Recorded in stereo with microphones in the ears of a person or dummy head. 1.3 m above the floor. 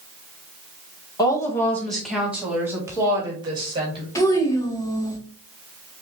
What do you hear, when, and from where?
1.2 s a woman speaking: 20° left (ahead or behind), 1.5 m; by 4.0 s 30° right (ahead or behind), 2.5 m
4.2 s a child speaking: 20° left (ahead or behind), 1.3 m